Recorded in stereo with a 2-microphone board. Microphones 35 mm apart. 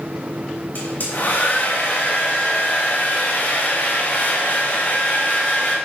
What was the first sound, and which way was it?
A hair dryer, 70° left (ahead or behind).